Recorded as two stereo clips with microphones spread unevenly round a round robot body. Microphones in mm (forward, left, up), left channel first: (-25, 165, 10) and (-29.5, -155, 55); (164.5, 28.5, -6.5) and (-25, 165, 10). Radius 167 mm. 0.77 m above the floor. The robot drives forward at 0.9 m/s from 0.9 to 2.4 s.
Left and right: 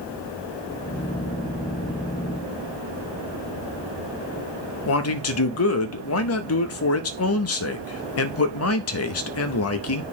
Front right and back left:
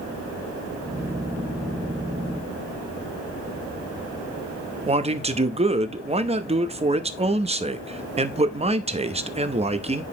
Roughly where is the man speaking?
Left.